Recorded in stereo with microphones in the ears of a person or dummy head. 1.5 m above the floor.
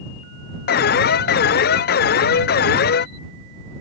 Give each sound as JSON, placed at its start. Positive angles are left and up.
{"t": 0.7, "sound": "an alarm", "side_deg": 50}